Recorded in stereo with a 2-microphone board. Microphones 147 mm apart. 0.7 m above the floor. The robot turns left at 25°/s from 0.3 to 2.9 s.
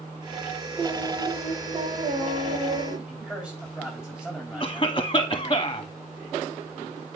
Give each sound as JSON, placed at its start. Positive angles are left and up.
{"t": 0.8, "sound": "singing", "azimuth_deg": -30, "distance_m": 2.0}
{"t": 3.1, "sound": "a man speaking", "side_deg": -10, "distance_m": 3.5}
{"t": 4.6, "sound": "a cough", "side_deg": 35, "distance_m": 1.0}